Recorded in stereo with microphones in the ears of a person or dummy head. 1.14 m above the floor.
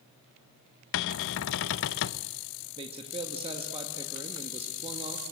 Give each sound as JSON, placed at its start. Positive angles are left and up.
{"t": 0.9, "sound": "a cupboard door", "side_deg": 65, "distance_m": 0.6}
{"t": 2.8, "sound": "a man speaking", "side_deg": -30, "distance_m": 1.8}